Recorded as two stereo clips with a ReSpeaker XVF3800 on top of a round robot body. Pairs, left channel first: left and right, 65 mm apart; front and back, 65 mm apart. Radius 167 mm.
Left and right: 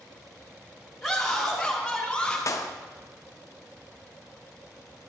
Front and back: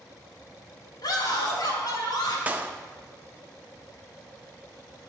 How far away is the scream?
About 3 m.